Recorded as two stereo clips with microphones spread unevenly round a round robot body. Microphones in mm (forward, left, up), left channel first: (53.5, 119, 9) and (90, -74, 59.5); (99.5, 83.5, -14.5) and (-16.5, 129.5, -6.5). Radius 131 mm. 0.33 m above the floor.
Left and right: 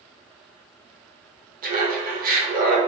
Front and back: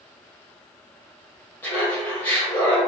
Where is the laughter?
75° right, 1.0 m.